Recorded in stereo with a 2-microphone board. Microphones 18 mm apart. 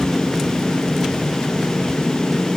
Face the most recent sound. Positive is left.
No sound to turn to.